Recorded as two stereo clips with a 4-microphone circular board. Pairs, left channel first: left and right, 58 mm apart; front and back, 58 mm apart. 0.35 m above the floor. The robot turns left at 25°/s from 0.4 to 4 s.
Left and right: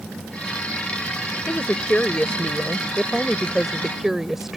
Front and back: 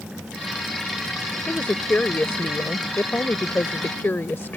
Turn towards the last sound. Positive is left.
turn(degrees=-10)